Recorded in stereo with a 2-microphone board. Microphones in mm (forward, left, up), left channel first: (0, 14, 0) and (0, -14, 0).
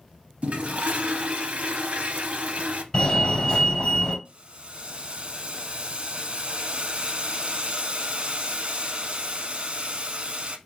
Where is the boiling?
50° right (ahead or behind), 0.5 m.